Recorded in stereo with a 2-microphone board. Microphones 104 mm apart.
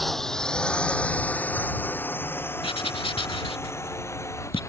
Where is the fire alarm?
I don't hear a fire alarm.